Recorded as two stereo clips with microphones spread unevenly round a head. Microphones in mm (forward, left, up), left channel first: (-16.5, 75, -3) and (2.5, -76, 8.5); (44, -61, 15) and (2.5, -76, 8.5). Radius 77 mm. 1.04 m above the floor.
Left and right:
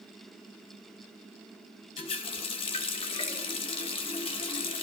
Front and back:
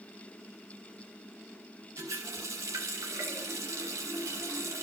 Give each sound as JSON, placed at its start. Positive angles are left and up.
{"t": 2.0, "sound": "a running tap", "azimuth_deg": 155, "distance_m": 0.8}